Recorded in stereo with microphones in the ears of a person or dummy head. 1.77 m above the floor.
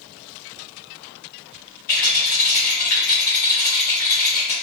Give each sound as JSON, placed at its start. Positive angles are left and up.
{"t": 1.9, "sound": "a rattle", "side_deg": 30, "distance_m": 1.7}